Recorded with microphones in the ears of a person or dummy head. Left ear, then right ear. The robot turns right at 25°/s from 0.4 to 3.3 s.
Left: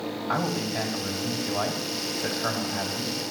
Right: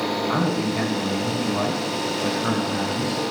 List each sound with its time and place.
0.3 s a man speaking: 65° left, 3 m; by 3.1 s 135° left, 3 m